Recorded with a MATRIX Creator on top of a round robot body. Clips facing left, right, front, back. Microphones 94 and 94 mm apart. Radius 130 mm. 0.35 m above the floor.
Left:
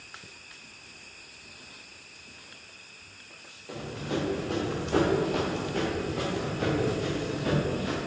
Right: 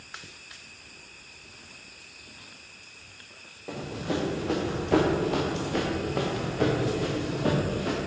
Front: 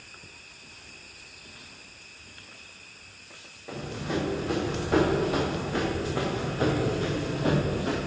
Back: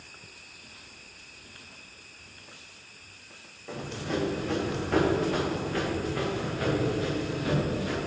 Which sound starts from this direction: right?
Running footsteps, at 3.7 s.